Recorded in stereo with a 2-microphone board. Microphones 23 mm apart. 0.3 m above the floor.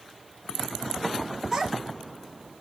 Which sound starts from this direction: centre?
A child speaking, at 1.5 s.